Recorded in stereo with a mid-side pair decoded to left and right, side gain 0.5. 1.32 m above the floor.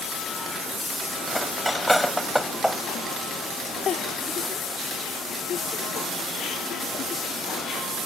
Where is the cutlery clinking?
Straight ahead.